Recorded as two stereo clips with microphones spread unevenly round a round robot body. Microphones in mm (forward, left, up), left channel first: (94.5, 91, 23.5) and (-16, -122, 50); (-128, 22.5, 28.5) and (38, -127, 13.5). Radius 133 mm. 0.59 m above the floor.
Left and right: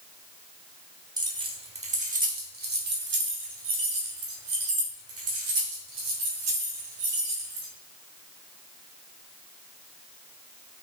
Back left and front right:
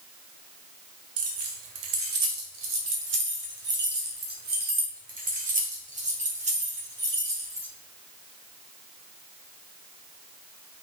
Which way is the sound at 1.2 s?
40° right.